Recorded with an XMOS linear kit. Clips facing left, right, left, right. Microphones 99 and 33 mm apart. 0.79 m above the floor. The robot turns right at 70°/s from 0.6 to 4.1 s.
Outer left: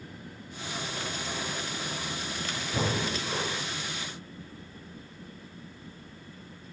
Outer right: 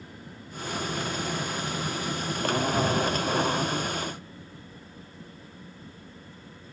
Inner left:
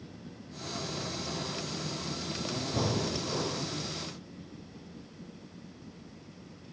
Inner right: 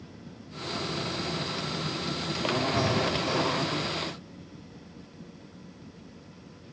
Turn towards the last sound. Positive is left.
turn(degrees=-115)